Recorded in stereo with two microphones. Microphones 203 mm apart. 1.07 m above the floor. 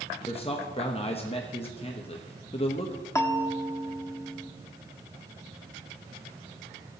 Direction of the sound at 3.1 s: 15° left (ahead or behind).